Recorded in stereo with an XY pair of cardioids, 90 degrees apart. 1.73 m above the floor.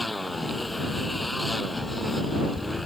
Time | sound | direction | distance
0.0 | a motorcycle | 10° left | ?